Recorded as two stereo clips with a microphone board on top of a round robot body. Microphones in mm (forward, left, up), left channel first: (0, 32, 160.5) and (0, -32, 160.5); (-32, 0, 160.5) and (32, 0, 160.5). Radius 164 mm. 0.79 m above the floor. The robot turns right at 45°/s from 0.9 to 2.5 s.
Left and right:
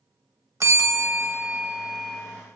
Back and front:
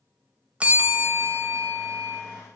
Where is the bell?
65° right, 1.4 m; by 2.2 s 10° right, 1.4 m.